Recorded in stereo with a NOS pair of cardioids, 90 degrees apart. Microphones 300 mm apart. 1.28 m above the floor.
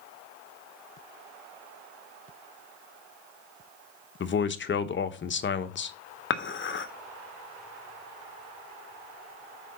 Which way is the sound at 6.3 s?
40° left.